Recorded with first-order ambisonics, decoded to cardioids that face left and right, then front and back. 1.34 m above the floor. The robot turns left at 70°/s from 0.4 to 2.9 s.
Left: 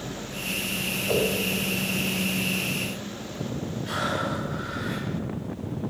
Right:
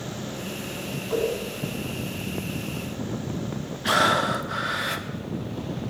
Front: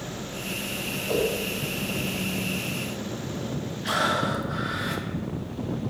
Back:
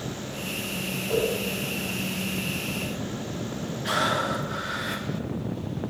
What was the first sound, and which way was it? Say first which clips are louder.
A whoosh: left 1 dB, even; 75° left.